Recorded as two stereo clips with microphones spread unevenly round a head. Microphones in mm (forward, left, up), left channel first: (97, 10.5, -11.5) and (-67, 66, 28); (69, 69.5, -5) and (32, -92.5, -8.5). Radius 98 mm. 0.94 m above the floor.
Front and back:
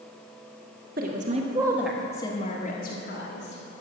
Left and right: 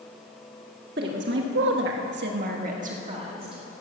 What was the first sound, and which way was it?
A woman speaking, 150° right.